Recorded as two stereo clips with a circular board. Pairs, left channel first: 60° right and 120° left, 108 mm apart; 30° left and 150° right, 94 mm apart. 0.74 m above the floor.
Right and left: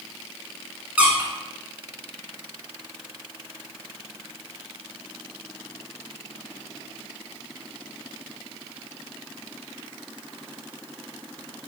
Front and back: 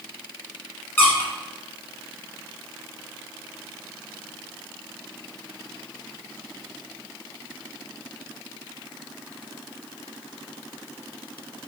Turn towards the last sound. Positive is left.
turn(degrees=65)